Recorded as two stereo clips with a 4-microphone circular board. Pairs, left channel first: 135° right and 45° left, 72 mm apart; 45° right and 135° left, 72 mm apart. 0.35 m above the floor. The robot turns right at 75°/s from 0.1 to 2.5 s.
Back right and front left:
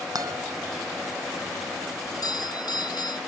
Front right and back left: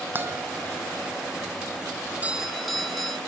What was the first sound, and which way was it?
A guitar, 75° left.